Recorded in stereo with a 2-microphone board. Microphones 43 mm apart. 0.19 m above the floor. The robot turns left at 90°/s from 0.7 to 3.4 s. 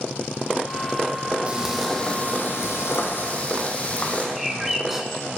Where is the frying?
150° right, 1.2 m; by 4.3 s 35° left, 1.2 m.